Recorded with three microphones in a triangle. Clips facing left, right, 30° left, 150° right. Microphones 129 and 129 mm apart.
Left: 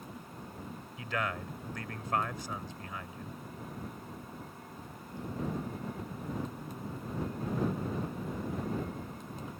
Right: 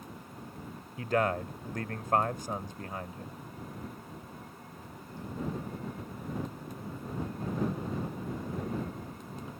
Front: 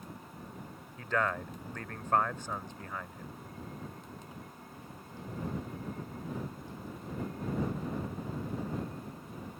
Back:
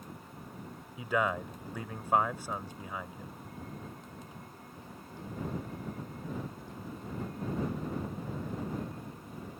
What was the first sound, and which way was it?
A man speaking, 75° right.